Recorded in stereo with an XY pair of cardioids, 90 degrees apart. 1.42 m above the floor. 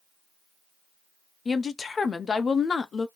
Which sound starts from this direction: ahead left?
A woman speaking, at 1.4 s.